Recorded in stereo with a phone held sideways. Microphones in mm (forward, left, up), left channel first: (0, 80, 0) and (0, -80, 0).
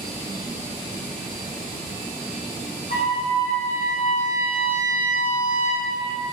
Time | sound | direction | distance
2.9 | a trumpet | 55° left (ahead or behind) | 0.5 m